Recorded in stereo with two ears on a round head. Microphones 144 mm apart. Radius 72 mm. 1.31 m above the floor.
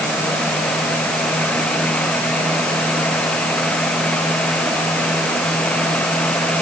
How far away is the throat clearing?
No throat clearing in this recording.